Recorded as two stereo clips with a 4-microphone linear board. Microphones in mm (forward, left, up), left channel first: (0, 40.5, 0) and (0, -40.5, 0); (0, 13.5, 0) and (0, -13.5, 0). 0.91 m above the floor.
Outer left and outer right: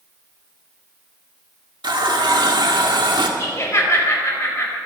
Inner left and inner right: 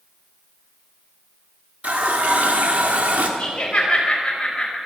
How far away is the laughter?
About 4.5 m.